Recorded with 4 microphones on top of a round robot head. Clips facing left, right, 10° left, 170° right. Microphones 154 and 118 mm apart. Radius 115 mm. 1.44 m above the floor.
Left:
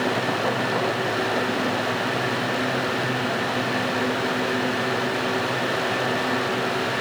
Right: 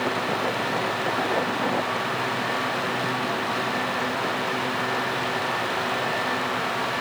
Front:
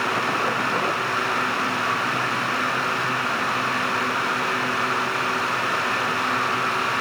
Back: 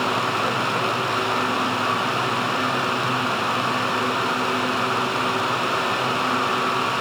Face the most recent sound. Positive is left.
No sound to turn to.